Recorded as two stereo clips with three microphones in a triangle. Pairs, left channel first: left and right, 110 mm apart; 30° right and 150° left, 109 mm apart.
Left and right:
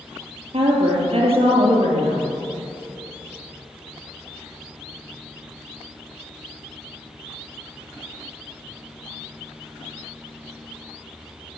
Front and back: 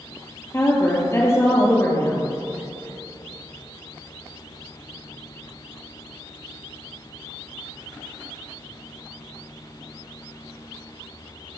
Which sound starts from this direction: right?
A woman speaking, at 0.5 s.